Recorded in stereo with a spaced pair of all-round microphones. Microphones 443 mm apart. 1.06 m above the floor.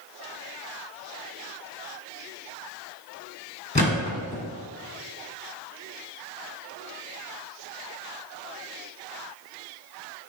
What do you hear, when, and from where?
3.8 s a thud: 15° left (ahead or behind), 1.4 m